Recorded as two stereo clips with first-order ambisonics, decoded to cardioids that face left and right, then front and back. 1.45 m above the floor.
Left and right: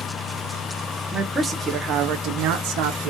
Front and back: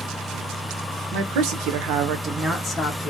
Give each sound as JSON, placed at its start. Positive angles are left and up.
{"t": 1.1, "sound": "a man speaking", "azimuth_deg": -175, "distance_m": 1.0}